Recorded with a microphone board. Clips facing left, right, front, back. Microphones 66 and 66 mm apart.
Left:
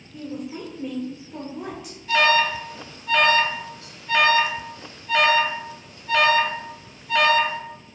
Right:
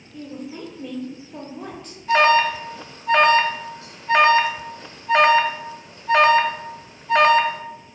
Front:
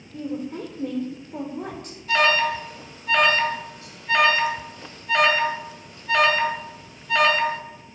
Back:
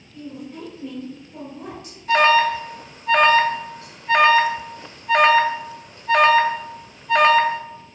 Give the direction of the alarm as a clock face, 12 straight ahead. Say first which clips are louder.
Right 3 dB, back 5 dB; 5 o'clock.